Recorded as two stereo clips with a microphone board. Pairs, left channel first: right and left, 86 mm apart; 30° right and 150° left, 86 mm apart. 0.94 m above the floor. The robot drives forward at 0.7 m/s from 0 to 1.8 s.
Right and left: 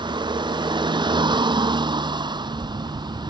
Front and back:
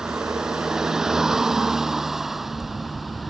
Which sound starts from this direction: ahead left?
A vehicle, at 0.0 s.